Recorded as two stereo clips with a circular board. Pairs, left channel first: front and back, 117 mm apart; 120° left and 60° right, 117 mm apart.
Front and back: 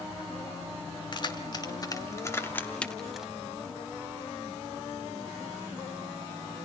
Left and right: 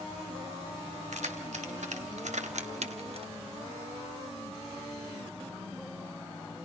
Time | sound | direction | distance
1.1 | keys jangling | 50° right | 2.5 m